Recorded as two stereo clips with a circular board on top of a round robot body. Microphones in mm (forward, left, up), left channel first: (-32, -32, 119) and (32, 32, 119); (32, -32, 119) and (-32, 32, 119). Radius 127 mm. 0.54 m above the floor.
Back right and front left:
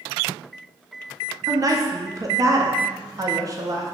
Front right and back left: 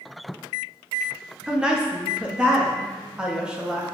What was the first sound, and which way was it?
A woman speaking, 60° left.